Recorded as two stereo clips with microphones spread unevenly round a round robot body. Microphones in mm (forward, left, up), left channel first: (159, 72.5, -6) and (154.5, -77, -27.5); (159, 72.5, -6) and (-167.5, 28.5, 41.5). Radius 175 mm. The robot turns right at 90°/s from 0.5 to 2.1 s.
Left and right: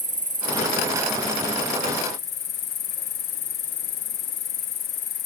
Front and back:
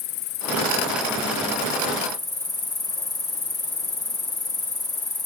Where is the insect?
55° right; by 5.3 s 85° left.